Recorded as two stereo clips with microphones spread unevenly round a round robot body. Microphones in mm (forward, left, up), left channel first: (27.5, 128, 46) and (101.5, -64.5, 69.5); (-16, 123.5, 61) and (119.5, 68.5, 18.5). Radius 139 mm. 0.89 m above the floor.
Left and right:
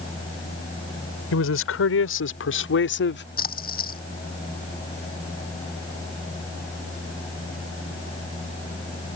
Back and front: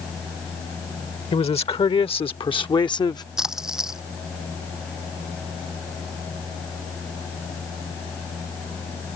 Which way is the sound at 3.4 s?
65° left.